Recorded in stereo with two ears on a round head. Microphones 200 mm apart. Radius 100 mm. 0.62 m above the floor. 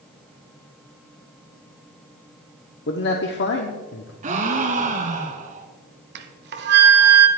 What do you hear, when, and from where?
2.9 s a man speaking: 50° left (ahead or behind), 1.0 m
4.2 s a gasp: 35° right (ahead or behind), 1.5 m
6.2 s a flute: 50° right (ahead or behind), 0.9 m